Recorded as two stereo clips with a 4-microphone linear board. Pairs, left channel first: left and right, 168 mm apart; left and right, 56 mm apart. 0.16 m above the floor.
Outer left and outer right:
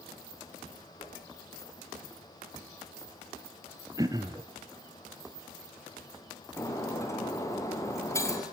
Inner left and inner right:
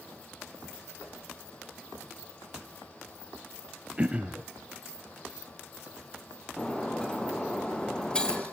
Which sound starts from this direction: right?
Throat clearing, at 4.0 s.